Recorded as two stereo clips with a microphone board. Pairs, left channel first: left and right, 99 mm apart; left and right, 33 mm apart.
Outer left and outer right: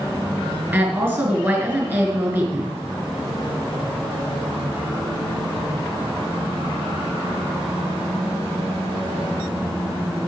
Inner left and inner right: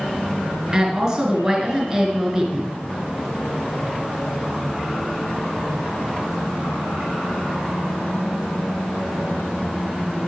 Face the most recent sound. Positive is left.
turn(degrees=-20)  # may be behind; listen again after turning